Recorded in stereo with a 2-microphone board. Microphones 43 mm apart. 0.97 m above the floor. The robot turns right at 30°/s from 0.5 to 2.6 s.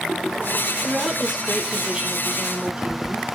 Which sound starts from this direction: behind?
A woman speaking, at 0.8 s.